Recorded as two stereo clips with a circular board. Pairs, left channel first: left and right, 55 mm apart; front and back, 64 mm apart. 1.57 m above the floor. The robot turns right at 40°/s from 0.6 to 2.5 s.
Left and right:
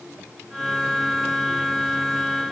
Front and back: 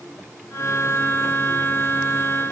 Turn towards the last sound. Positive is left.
No sound to turn to.